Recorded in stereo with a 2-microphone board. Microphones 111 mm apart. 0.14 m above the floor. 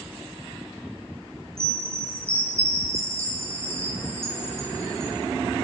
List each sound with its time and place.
1.6 s a chime: 25° right (ahead or behind), 2 m